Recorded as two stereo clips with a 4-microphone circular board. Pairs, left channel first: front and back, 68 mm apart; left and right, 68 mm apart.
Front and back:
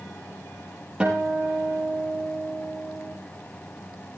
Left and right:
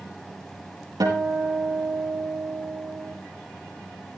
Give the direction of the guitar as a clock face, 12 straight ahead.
3 o'clock.